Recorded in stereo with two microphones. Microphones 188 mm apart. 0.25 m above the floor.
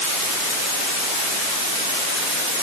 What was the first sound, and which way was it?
Only background noise.